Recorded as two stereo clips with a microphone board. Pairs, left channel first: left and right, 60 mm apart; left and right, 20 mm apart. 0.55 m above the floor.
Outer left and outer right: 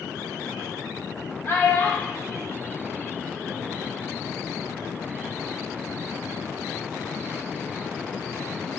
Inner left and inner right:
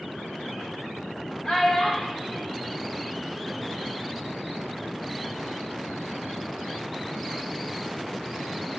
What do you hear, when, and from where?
1.4 s a child speaking: 40° left (ahead or behind), 0.9 m; by 3.8 s 10° left (ahead or behind), 2.5 m